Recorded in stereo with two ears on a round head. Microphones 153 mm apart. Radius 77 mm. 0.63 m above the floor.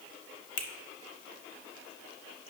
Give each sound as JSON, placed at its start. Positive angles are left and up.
{"t": 0.6, "sound": "a finger snap", "side_deg": 30, "distance_m": 0.8}